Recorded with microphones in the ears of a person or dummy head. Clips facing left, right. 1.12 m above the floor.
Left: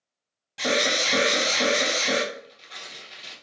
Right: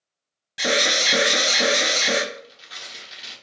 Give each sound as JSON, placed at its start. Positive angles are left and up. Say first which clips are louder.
{"t": 0.6, "sound": "an alarm", "louder": "right 1 dB", "side_deg": -15, "distance_m": 0.6}
{"t": 2.3, "sound": "tearing paper", "louder": "right 1 dB", "side_deg": -5, "distance_m": 0.9}